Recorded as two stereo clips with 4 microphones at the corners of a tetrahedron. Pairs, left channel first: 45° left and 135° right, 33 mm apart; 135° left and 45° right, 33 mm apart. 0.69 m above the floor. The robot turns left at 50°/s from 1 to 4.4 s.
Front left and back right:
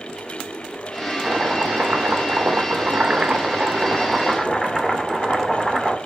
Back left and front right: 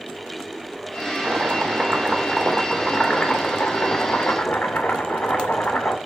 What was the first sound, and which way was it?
Chopping, 80° right.